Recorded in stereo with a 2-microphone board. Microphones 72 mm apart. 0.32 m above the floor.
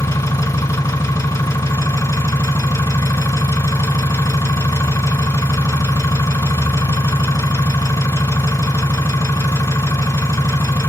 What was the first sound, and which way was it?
An engine running, 50° left (ahead or behind).